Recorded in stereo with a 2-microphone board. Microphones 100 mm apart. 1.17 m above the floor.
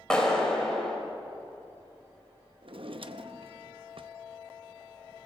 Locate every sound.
0.1 s a clap: 5° left (ahead or behind), 4.5 m
2.6 s a drawer: 60° right (ahead or behind), 0.7 m